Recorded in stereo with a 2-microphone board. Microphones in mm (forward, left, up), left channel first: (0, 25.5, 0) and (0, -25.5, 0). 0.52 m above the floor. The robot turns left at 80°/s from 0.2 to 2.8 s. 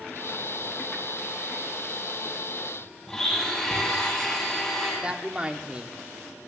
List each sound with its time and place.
3.1 s a blender: 10° left (ahead or behind), 10 m
5.0 s a woman speaking: 20° right (ahead or behind), 1.1 m